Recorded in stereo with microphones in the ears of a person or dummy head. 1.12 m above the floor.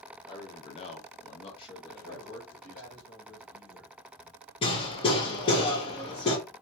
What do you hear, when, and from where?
0.2 s a man speaking: 25° left (ahead or behind), 0.7 m; by 2.9 s 10° left (ahead or behind), 1.4 m
1.9 s a man speaking: 50° left (ahead or behind), 1.3 m
4.6 s hammering: 25° left (ahead or behind), 1.2 m